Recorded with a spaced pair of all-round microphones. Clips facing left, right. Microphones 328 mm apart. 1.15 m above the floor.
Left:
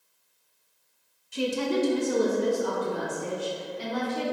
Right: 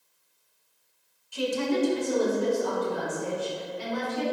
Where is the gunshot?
No gunshot in this recording.